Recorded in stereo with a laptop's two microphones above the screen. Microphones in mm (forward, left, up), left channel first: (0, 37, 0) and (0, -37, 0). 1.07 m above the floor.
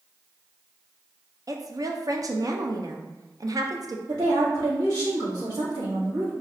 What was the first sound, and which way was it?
A woman speaking, 50° right (ahead or behind).